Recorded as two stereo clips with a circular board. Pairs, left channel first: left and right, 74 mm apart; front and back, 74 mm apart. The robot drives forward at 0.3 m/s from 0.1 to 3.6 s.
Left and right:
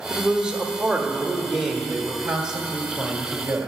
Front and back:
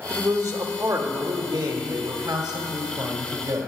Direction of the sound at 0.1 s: 170° right.